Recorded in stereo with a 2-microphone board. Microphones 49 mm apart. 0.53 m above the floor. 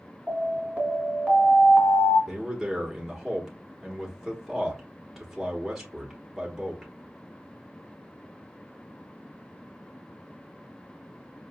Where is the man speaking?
5° right (ahead or behind), 1.0 m.